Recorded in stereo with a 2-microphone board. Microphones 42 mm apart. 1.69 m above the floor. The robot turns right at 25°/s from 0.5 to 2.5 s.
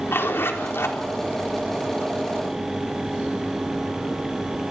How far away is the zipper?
About 4 m.